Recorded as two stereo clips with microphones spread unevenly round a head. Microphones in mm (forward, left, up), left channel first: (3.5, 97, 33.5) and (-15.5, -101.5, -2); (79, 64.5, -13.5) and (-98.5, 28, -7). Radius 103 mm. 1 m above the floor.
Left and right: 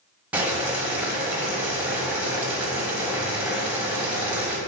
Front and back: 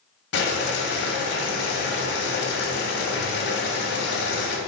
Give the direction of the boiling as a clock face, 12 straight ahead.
1 o'clock.